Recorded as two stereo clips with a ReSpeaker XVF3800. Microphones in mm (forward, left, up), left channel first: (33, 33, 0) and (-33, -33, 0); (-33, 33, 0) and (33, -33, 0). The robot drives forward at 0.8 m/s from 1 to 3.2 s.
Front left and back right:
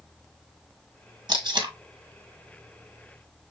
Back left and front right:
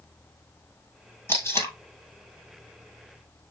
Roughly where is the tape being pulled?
Behind.